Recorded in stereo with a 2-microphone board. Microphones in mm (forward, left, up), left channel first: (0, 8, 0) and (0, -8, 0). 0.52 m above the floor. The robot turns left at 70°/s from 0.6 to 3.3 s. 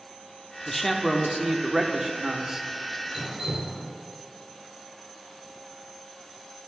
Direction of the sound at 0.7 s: 35° left.